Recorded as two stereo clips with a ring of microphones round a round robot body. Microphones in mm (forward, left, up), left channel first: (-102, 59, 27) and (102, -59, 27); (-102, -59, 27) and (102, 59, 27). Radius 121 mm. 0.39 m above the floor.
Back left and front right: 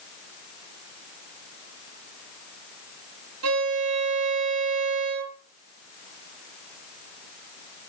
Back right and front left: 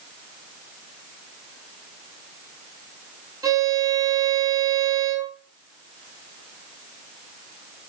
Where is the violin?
45° right, 5 m.